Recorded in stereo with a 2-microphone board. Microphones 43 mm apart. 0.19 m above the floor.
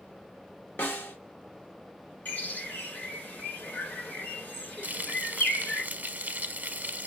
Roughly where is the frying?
Right.